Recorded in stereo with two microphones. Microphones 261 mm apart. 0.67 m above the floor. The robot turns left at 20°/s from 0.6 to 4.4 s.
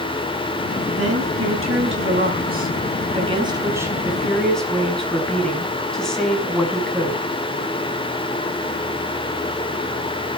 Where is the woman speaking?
115° right, 4.5 m; by 7.3 s straight behind, 4.5 m.